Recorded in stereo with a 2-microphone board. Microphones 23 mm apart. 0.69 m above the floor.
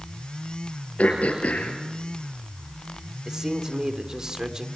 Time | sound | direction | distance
1.0 | throat clearing | 80° left | 4.5 m
3.2 | a man speaking | 30° right (ahead or behind) | 2.5 m